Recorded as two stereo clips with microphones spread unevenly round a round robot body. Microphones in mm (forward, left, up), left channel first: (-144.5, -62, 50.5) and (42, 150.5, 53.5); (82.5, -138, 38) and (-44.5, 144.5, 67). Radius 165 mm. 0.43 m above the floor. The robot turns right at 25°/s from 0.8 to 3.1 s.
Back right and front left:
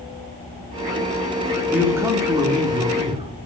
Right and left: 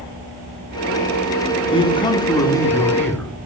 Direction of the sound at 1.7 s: 30° right.